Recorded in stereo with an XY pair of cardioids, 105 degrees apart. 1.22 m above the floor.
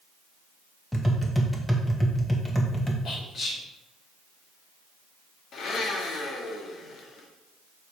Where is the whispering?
55° left, 4 m.